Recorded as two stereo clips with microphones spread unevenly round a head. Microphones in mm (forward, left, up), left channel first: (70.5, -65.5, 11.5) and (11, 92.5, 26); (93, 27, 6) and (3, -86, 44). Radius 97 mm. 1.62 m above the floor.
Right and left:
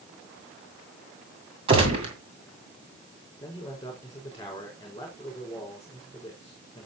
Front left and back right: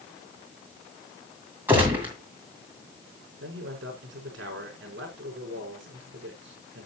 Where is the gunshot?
165° left, 2 m.